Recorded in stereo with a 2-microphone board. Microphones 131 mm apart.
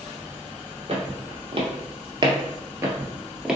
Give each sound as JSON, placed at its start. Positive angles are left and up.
{"t": 0.9, "sound": "footsteps", "side_deg": -50, "distance_m": 1.6}